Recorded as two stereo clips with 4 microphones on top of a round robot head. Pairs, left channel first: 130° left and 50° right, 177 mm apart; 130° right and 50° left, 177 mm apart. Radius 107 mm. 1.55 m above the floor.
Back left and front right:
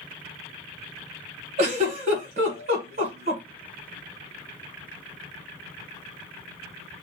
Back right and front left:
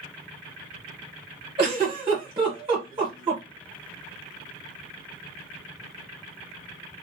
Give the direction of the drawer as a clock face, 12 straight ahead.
No drawer in this recording.